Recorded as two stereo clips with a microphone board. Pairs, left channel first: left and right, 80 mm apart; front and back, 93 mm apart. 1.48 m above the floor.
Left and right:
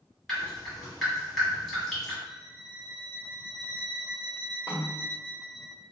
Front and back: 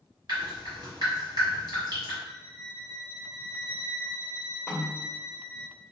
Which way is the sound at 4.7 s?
60° right.